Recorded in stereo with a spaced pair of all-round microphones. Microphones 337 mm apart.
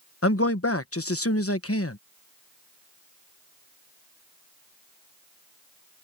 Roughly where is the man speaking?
Left.